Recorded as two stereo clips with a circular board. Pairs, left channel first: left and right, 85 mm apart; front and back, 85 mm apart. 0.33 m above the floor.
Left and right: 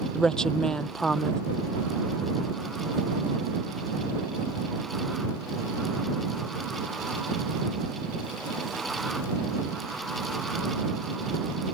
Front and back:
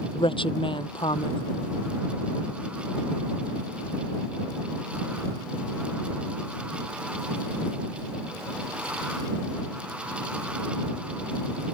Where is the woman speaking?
5° left.